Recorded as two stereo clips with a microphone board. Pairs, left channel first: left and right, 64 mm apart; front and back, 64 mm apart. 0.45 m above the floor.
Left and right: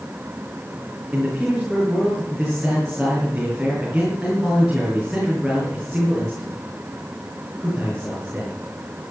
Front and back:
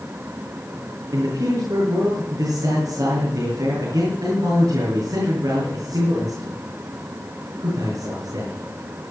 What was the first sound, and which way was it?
A man speaking, 175° right.